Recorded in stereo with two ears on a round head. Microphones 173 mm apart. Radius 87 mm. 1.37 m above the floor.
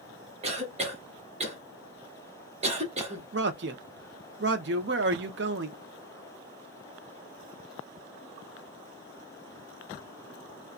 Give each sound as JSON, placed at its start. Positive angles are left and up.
{"t": 0.4, "sound": "a cough", "side_deg": -35, "distance_m": 1.2}
{"t": 3.3, "sound": "a man speaking", "side_deg": -60, "distance_m": 0.7}